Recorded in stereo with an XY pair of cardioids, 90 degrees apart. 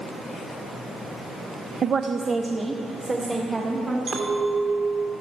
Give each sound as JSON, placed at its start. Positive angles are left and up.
{"t": 1.8, "sound": "a woman speaking", "azimuth_deg": -55, "distance_m": 0.6}
{"t": 4.1, "sound": "a clink", "azimuth_deg": -50, "distance_m": 2.5}